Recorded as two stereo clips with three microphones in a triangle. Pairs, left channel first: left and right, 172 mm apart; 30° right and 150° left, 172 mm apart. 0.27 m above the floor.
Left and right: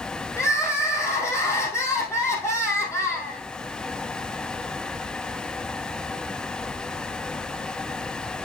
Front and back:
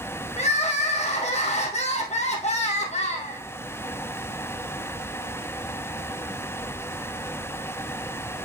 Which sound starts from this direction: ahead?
Crying, at 0.4 s.